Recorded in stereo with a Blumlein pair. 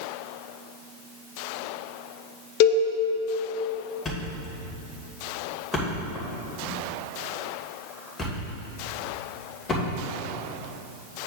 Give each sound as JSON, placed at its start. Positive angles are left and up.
{"t": 2.6, "sound": "a cowbell", "azimuth_deg": 45, "distance_m": 1.0}
{"t": 4.0, "sound": "a thud", "azimuth_deg": 15, "distance_m": 2.5}